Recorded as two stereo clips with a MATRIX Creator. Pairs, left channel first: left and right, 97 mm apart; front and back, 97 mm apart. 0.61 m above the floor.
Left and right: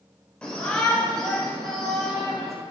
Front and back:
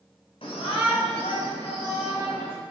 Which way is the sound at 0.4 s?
10° left.